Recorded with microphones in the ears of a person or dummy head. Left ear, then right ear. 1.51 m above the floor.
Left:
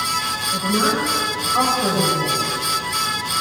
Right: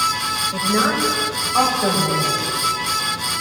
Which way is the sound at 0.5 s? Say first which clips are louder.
Left 1 dB; 20° right (ahead or behind).